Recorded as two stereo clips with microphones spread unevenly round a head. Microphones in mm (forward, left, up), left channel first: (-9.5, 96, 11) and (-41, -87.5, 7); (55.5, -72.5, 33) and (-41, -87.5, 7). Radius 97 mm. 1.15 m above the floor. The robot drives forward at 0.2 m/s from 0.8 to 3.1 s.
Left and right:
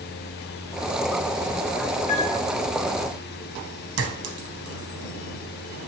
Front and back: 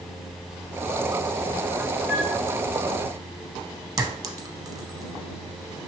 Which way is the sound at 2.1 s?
135° left.